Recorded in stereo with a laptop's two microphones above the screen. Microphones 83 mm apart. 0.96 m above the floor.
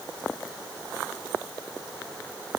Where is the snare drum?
No snare drum in this recording.